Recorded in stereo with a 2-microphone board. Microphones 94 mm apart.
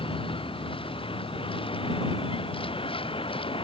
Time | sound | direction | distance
0.0 | a vehicle | 70° left (ahead or behind) | ?